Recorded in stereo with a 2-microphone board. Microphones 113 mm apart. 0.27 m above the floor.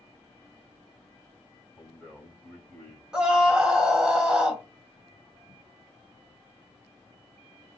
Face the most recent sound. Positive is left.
turn(degrees=-5)  # may be behind; listen again after turning